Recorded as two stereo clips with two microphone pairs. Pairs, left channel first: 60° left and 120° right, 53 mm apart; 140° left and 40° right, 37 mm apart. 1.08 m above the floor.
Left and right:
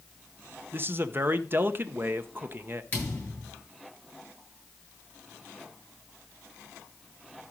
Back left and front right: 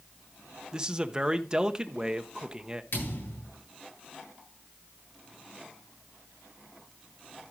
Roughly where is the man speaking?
Right.